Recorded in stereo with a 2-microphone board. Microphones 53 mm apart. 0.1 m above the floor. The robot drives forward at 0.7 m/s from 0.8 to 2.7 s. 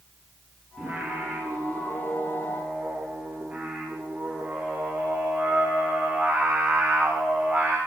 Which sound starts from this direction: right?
Singing, at 0.8 s.